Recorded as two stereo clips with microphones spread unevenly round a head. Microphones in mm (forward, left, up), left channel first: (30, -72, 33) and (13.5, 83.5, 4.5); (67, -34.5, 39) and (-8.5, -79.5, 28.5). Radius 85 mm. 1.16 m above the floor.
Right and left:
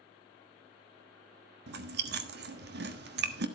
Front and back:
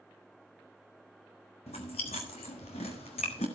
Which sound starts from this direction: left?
Chewing, at 1.7 s.